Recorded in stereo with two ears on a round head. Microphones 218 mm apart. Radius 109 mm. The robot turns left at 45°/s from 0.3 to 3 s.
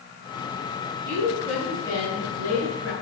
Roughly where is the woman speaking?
Behind.